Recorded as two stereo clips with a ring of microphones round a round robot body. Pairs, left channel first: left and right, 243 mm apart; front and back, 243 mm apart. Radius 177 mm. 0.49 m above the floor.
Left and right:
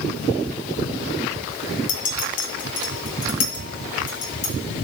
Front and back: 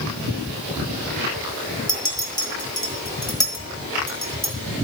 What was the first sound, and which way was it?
A clink, 75° left.